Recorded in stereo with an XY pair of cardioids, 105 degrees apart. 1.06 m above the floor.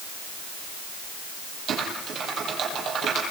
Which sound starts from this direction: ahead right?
Typing on a keyboard, at 1.7 s.